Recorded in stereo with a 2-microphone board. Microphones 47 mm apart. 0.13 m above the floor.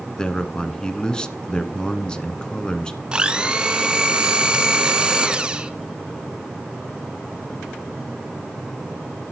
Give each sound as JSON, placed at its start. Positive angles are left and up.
{"t": 0.2, "sound": "a man speaking", "side_deg": 20, "distance_m": 1.2}
{"t": 3.1, "sound": "a blender", "side_deg": -20, "distance_m": 1.1}